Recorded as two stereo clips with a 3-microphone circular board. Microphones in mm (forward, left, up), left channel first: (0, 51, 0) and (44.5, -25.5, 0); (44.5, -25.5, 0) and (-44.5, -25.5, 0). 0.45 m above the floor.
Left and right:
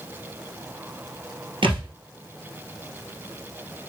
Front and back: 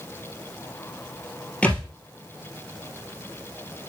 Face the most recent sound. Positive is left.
turn(degrees=-75)